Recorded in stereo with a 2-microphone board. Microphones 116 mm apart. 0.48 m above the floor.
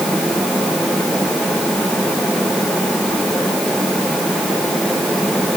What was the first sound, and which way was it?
Only background noise.